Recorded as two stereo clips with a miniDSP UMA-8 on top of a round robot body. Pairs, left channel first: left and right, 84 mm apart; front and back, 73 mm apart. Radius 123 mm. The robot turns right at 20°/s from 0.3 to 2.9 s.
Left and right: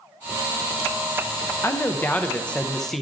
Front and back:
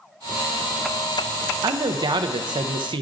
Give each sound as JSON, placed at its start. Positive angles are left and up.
{"t": 1.6, "sound": "a man speaking", "azimuth_deg": 155, "distance_m": 0.5}